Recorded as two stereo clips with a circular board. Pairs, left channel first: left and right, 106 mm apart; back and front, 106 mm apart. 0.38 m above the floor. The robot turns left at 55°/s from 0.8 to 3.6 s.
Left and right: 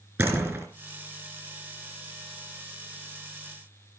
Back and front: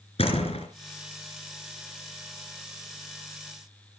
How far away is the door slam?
About 3 m.